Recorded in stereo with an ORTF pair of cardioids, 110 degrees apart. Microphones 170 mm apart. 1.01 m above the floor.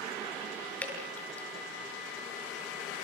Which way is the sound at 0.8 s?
10° left.